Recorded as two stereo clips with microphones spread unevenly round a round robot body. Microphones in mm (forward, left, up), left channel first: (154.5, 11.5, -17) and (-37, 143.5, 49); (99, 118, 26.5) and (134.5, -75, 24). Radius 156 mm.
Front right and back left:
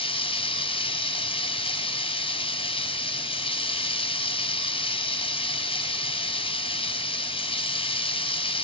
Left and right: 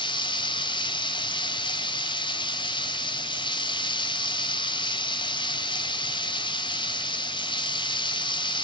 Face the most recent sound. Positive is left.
turn(degrees=30)